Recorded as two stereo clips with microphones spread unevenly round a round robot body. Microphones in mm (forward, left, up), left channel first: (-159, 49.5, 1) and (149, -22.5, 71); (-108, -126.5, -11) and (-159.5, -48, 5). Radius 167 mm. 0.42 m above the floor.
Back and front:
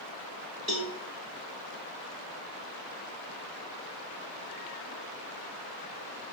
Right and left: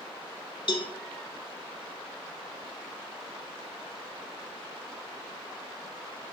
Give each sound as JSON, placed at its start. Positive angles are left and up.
{"t": 0.7, "sound": "a cowbell", "azimuth_deg": -100, "distance_m": 0.7}